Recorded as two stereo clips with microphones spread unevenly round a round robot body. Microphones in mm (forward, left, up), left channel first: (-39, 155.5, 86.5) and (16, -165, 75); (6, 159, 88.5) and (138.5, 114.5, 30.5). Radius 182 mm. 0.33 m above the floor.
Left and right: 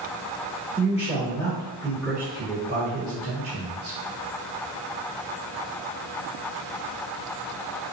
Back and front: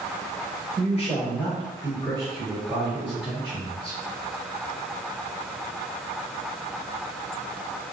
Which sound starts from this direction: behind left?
A man speaking, at 0.8 s.